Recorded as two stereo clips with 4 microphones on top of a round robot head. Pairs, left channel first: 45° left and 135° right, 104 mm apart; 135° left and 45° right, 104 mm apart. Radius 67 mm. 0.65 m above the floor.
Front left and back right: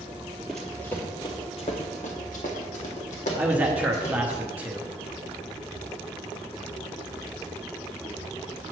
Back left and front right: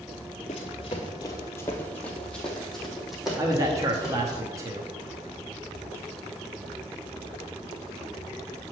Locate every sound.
0.5 s running footsteps: 135° left, 0.8 m; by 4.4 s 35° left, 2 m
3.4 s a man speaking: 70° right, 0.8 m